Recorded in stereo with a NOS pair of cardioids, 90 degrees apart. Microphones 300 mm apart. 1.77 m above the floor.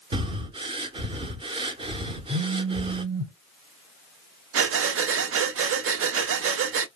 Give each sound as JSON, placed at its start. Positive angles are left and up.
{"t": 0.1, "sound": "breathing", "azimuth_deg": -20, "distance_m": 0.5}
{"t": 2.3, "sound": "a phone buzzing", "azimuth_deg": -5, "distance_m": 0.7}
{"t": 4.5, "sound": "breathing", "azimuth_deg": -45, "distance_m": 0.6}